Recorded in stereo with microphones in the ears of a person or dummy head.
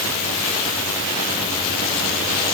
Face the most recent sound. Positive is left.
No sound to turn to.